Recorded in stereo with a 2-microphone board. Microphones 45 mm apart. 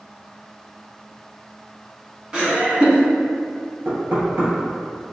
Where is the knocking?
65° right (ahead or behind), 2.0 m.